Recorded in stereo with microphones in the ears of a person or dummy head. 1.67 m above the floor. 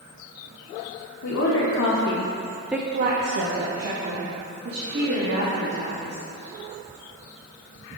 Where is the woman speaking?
75° left (ahead or behind), 2 m; by 6.2 s 85° right, 5 m.